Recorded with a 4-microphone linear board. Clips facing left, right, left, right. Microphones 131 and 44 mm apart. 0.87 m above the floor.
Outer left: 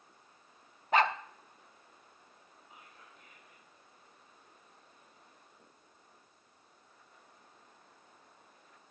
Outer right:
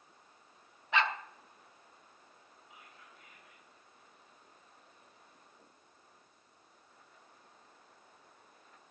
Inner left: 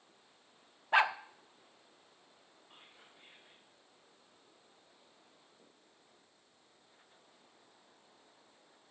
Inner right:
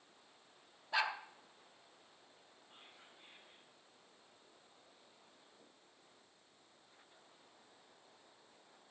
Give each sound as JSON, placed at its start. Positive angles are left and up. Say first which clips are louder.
{"t": 0.9, "sound": "a dog barking", "louder": "outer left 4 dB, inner left 8 dB", "side_deg": 45, "distance_m": 0.5}
{"t": 2.7, "sound": "whispering", "louder": "outer left 1 dB, inner left 1 dB", "side_deg": 40, "distance_m": 3.5}